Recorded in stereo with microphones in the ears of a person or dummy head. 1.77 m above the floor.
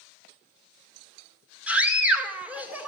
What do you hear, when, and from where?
1.7 s a scream: 5° right (ahead or behind), 2.0 m